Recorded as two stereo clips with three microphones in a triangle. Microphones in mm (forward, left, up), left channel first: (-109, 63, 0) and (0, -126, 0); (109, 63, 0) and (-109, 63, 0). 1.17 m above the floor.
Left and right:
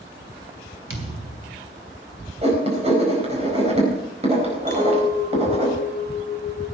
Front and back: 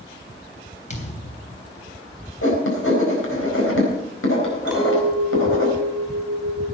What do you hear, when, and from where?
0.9 s a thud: 55° right, 3 m
2.4 s writing: straight ahead, 4 m
4.7 s a clink: 95° right, 5.5 m